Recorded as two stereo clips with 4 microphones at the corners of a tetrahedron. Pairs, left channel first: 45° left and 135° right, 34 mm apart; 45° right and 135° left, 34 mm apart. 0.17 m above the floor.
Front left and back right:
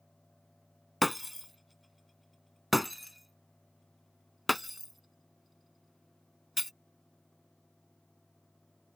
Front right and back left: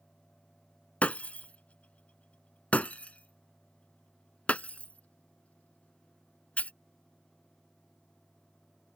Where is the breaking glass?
45° right.